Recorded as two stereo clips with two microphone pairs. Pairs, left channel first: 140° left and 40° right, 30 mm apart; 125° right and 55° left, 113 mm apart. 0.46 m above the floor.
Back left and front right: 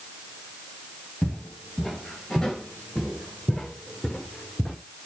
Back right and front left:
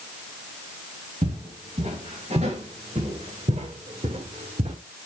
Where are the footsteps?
60° left, 5 m; by 4.8 s 55° left, 2.5 m.